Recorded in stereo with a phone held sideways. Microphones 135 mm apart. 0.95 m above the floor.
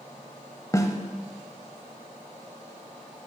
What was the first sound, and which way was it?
A snare drum, 25° left (ahead or behind).